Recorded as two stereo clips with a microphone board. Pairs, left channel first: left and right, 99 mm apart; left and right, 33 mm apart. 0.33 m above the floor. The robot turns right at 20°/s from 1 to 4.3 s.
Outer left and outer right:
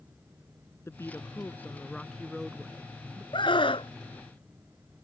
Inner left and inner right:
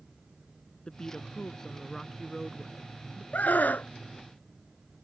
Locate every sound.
0.9 s a woman speaking: 150° left; by 3.2 s 165° right
3.3 s a scream: 55° left (ahead or behind); by 3.9 s 65° left (ahead or behind)